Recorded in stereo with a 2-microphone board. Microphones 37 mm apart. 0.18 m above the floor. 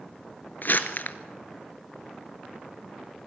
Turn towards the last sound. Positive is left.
turn(degrees=55)  # may be behind; listen again after turning